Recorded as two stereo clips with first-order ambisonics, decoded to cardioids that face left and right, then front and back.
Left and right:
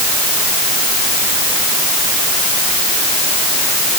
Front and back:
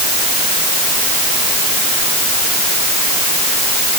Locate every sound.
Only background noise.